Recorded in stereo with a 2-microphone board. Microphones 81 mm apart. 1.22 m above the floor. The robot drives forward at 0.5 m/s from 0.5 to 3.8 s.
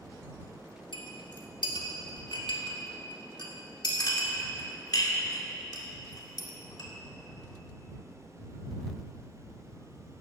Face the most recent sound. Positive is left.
turn(degrees=55)  # may be behind; listen again after turning